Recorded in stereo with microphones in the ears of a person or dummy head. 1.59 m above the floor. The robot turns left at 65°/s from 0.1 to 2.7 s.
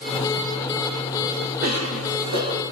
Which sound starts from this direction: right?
A cough, at 1.6 s.